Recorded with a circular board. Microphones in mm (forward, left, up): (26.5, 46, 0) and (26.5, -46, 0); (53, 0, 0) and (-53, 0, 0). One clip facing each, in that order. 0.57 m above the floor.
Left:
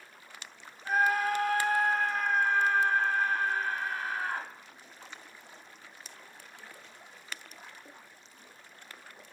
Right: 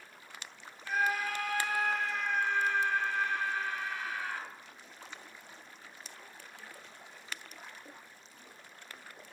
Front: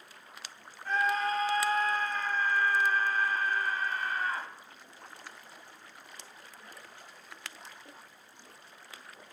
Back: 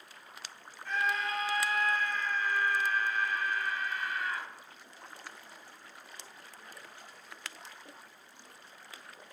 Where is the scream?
50° left, 3 m.